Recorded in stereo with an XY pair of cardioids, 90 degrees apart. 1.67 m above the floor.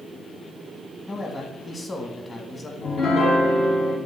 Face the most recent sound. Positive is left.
turn(degrees=60)